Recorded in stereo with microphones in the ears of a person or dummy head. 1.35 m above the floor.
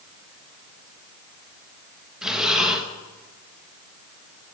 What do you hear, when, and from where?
2.2 s breathing: 5° right (ahead or behind), 1.2 m